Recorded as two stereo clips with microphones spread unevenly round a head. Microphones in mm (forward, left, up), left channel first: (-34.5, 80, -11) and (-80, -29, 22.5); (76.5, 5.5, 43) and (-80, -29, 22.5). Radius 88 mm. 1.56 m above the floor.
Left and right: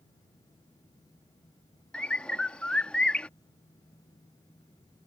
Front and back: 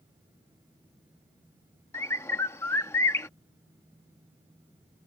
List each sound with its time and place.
1.9 s a bird: 40° right